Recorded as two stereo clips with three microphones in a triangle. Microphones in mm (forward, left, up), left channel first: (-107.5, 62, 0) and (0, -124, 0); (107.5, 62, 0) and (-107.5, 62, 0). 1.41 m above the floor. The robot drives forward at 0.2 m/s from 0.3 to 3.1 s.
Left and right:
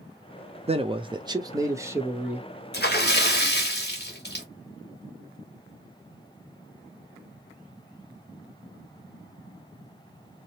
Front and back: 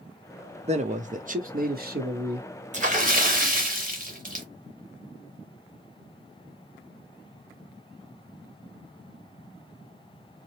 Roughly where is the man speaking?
Behind right.